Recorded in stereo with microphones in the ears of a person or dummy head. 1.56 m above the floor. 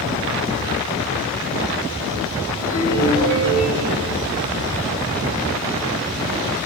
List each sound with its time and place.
2.6 s a ringtone: 85° left, 7.5 m